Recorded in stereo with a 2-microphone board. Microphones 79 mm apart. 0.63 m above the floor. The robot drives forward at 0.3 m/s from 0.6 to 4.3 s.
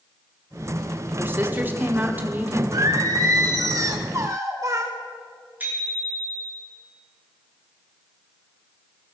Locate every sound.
1.2 s a woman speaking: 30° right (ahead or behind), 1.2 m; by 2.6 s 20° right (ahead or behind), 1.5 m
2.7 s singing: 55° right (ahead or behind), 1.5 m; by 4.9 s 40° right (ahead or behind), 1.7 m
5.6 s a bicycle bell: 25° right (ahead or behind), 6.5 m